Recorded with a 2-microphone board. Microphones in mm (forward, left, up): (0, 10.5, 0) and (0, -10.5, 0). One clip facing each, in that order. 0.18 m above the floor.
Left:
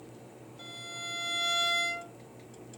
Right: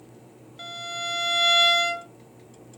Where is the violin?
55° right (ahead or behind), 0.5 m.